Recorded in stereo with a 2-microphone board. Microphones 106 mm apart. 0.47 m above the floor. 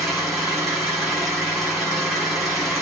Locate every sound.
0.0 s an engine running: centre (ahead or behind), 2 m